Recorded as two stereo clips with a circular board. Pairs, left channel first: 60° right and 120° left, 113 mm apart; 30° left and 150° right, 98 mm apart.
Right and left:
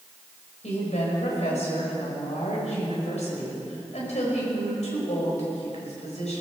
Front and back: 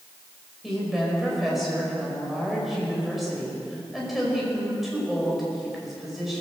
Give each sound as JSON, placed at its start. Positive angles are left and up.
{"t": 0.6, "sound": "a woman speaking", "azimuth_deg": -60, "distance_m": 5.0}